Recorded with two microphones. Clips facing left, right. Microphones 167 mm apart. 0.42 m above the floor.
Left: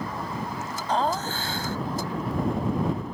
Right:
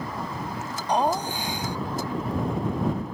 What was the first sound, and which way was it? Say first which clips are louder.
Laughter: right 2 dB; 15° right (ahead or behind).